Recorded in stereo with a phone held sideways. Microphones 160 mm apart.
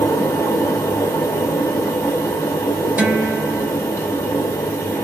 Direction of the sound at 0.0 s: 20° left (ahead or behind).